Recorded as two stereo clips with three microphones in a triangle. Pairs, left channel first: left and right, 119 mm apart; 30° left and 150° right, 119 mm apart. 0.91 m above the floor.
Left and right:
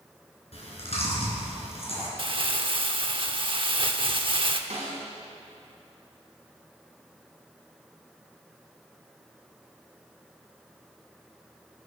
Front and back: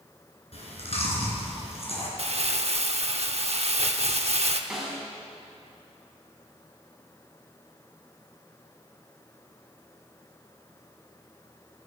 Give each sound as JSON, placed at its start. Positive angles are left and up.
{"t": 0.5, "sound": "chewing", "azimuth_deg": 60, "distance_m": 3.5}
{"t": 2.2, "sound": "crumpling", "azimuth_deg": -130, "distance_m": 0.8}
{"t": 4.7, "sound": "a snare drum", "azimuth_deg": -60, "distance_m": 3.5}